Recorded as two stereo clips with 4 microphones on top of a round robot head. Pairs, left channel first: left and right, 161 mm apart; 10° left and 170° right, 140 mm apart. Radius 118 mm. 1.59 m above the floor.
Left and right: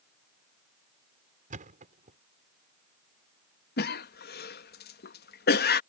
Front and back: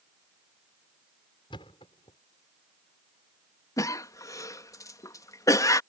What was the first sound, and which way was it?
A thud, 55° right.